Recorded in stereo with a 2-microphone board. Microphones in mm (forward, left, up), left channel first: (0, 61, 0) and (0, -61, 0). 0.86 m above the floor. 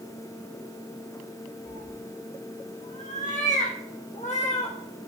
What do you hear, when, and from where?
1.6 s a cat meowing: 80° left, 5.5 m; by 4.8 s 60° left (ahead or behind), 4 m